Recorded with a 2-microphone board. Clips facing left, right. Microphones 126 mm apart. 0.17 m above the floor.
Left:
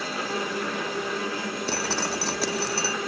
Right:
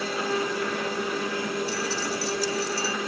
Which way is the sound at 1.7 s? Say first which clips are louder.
Left 1 dB; 75° left (ahead or behind).